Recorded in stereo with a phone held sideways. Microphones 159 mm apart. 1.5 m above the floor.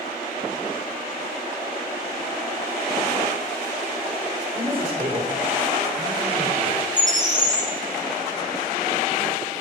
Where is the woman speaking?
65° right (ahead or behind), 3.5 m.